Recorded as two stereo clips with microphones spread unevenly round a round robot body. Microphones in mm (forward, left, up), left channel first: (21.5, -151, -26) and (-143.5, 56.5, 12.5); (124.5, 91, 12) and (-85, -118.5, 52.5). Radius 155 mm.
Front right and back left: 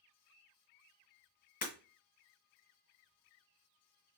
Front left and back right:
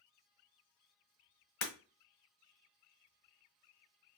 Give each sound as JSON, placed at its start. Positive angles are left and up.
{"t": 1.6, "sound": "breaking glass", "azimuth_deg": 10, "distance_m": 1.4}